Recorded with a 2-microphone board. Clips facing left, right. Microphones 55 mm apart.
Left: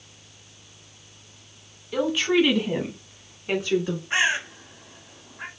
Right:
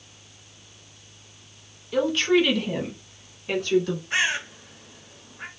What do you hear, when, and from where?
1.9 s a woman speaking: 5° left (ahead or behind), 1.1 m; by 4.0 s 15° left (ahead or behind), 1.8 m
4.1 s a bird: 20° left (ahead or behind), 1.6 m